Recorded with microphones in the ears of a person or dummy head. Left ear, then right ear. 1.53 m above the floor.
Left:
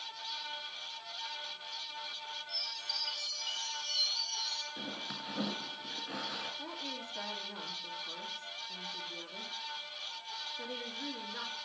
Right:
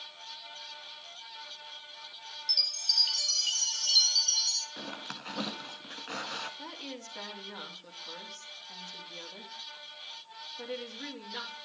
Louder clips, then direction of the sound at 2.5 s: Right 11 dB; 65° right (ahead or behind).